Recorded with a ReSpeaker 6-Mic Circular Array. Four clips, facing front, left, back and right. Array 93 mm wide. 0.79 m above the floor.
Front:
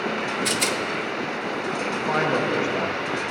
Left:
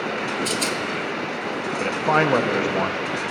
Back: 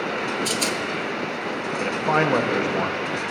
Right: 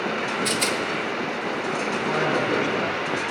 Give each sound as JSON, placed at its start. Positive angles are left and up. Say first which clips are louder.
{"t": 0.5, "sound": "a rattle", "louder": "even, even", "azimuth_deg": -30, "distance_m": 0.6}
{"t": 1.8, "sound": "a man speaking", "louder": "left 7 dB, back 4 dB", "azimuth_deg": 110, "distance_m": 0.6}